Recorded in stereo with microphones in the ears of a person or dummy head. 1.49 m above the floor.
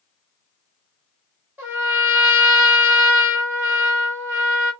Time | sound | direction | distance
1.6 | a trumpet | 10° right (ahead or behind) | 1.3 m